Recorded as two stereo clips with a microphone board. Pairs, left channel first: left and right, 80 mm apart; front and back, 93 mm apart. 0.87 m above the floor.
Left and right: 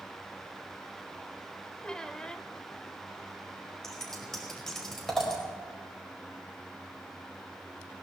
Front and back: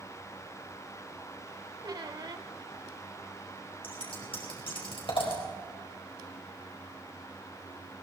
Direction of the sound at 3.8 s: 5° left.